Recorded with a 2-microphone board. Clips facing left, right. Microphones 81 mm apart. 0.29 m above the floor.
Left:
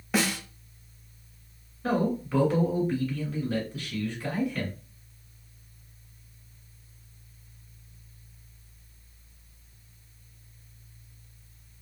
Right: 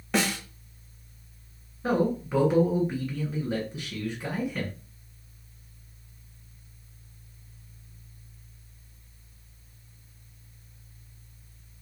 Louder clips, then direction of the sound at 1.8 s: Right 1 dB; 15° right (ahead or behind).